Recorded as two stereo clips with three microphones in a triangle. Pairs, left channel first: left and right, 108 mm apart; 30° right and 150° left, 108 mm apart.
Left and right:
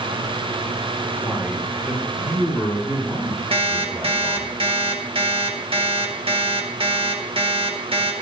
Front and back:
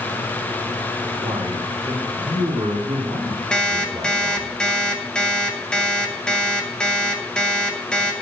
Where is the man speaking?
175° right, 5.5 m; by 4.5 s 150° right, 3.5 m.